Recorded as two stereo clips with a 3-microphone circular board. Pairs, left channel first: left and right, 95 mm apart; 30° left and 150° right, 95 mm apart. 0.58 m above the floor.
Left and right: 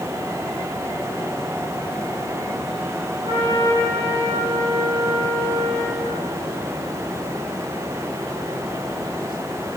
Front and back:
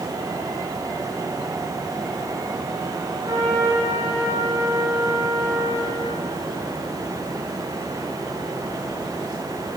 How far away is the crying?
No crying in this recording.